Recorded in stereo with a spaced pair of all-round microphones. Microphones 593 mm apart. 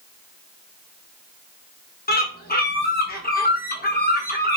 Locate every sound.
2.1 s a bird: 15° left (ahead or behind), 0.7 m